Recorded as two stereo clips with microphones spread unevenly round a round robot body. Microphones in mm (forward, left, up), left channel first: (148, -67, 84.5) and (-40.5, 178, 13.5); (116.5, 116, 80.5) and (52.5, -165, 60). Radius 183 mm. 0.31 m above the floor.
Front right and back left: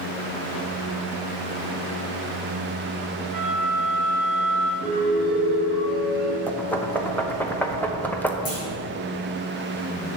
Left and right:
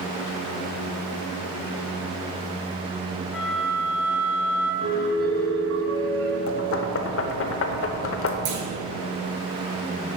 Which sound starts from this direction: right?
A clunk, at 8.4 s.